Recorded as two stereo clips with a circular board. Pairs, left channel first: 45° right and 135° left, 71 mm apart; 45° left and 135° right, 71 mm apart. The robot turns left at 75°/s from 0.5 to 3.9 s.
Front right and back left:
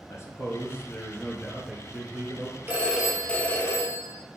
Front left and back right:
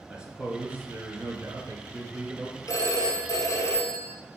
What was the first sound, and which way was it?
A man speaking, 65° right.